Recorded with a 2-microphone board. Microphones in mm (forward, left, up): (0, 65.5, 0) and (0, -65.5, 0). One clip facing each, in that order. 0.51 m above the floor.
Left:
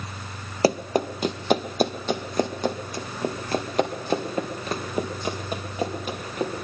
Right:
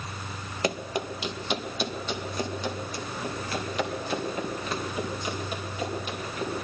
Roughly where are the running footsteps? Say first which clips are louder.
Left 8 dB; left.